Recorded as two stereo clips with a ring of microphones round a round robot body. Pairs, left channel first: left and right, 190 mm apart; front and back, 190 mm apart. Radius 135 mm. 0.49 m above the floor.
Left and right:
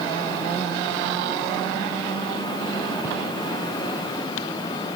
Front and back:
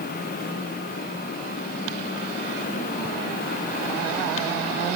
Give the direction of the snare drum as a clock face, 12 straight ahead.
I don't hear a snare drum.